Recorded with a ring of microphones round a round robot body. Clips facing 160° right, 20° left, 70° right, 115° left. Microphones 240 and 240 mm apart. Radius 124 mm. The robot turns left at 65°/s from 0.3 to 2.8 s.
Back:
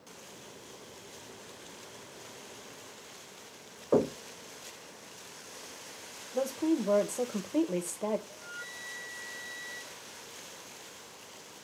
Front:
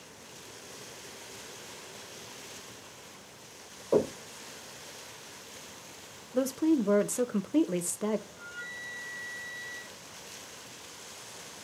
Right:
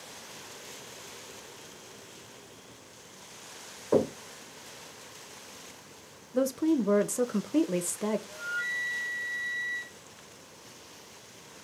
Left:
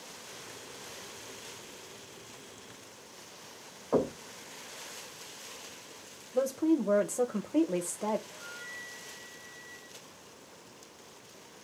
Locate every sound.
3.9 s knocking: 85° right, 2.5 m
6.3 s a woman speaking: 20° right, 0.6 m
8.3 s a flute: 50° right, 0.6 m